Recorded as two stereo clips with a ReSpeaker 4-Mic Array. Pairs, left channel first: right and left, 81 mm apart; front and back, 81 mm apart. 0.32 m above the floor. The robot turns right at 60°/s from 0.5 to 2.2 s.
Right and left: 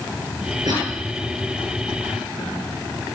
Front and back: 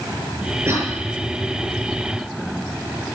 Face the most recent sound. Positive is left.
turn(degrees=-145)